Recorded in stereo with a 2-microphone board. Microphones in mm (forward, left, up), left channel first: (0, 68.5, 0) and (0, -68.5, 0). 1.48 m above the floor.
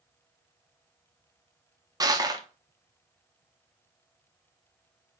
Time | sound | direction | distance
2.0 | crushing | 25° right (ahead or behind) | 0.6 m